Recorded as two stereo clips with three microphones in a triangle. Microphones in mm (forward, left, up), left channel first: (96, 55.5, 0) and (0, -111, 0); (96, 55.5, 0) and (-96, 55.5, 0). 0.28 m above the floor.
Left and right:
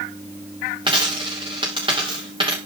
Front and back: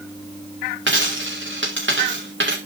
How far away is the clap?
No clap in this recording.